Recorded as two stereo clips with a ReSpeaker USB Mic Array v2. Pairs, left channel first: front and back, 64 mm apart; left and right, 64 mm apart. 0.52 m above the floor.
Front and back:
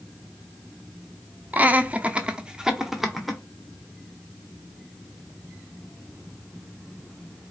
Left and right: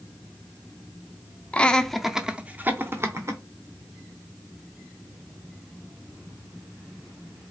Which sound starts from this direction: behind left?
Laughter, at 1.5 s.